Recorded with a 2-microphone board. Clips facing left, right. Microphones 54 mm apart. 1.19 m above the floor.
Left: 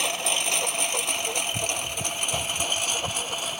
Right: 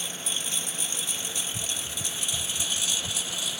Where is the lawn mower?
65° left (ahead or behind); by 3.6 s 45° left (ahead or behind).